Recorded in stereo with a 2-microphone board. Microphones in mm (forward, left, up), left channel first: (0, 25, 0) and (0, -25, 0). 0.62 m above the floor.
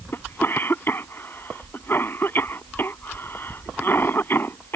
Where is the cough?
45° left (ahead or behind).